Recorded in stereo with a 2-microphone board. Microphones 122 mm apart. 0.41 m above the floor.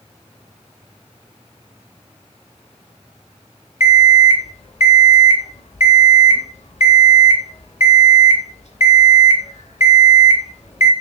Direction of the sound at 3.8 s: 65° left (ahead or behind).